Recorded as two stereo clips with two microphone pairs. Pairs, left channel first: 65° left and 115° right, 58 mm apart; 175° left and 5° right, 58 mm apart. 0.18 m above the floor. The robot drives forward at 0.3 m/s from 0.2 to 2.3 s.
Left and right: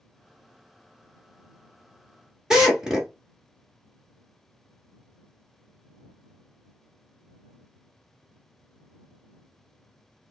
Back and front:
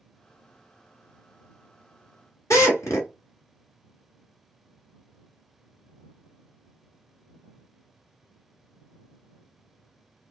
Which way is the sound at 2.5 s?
165° left.